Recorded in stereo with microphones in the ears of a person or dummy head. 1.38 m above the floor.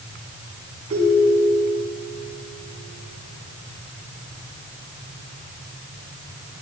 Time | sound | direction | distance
0.9 | a ringtone | 35° right (ahead or behind) | 6.5 m